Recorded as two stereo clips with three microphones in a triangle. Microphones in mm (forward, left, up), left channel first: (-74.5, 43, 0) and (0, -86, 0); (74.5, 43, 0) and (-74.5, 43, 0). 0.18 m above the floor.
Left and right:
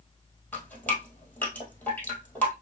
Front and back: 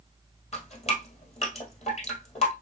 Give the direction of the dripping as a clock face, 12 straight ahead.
11 o'clock.